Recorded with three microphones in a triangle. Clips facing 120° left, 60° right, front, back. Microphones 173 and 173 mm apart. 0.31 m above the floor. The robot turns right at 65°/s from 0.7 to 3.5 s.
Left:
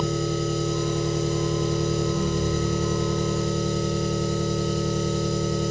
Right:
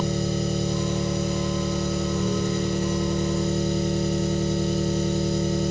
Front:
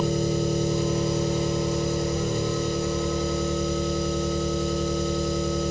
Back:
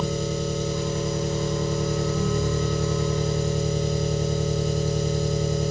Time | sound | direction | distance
0.0 | an engine running | 30° left | 2 m